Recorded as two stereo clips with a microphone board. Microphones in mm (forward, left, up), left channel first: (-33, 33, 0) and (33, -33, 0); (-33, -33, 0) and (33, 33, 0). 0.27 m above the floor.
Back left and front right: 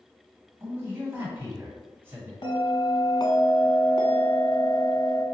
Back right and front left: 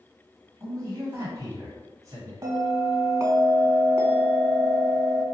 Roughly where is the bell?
Left.